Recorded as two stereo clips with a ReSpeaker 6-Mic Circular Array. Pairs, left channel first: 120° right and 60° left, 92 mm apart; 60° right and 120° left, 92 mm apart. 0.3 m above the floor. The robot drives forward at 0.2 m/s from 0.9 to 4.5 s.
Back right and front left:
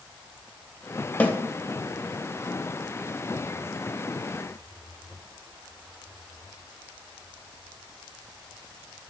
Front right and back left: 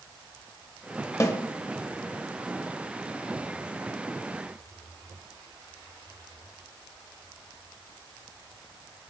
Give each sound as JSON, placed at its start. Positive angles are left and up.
{"t": 1.2, "sound": "a snare drum", "azimuth_deg": -65, "distance_m": 0.5}